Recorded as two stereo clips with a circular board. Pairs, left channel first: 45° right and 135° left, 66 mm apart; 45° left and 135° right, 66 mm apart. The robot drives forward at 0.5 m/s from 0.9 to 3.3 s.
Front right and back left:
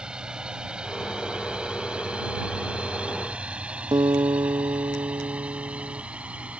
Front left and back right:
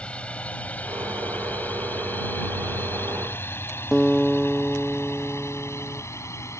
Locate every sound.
0.0 s a drone: 80° left; by 6.6 s 70° left
3.9 s a guitar: 140° left